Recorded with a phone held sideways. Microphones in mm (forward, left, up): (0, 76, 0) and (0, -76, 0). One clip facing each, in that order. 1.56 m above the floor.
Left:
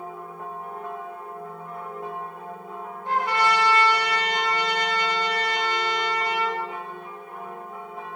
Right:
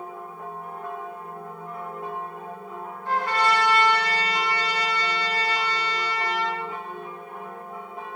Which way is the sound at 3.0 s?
20° left (ahead or behind).